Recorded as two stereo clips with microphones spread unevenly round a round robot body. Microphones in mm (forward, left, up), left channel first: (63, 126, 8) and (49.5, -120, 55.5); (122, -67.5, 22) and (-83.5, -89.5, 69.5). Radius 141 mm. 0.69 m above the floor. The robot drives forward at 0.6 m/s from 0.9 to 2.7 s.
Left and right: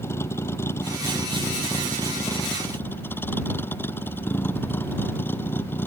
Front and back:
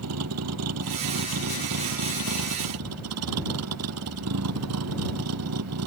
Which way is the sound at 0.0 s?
170° left.